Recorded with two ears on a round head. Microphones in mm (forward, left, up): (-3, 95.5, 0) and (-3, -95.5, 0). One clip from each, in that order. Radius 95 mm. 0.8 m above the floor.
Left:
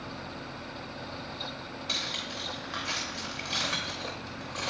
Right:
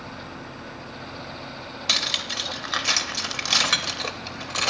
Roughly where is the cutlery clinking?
Right.